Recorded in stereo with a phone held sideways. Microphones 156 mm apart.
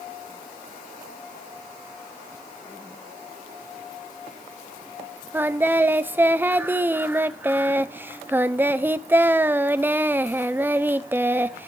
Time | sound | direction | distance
5.3 | singing | 10° right (ahead or behind) | 0.6 m